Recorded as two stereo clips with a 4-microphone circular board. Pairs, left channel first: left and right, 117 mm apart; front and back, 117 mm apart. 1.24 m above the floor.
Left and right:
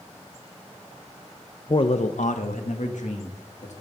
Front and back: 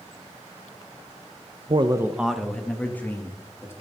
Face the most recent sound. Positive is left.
turn(degrees=70)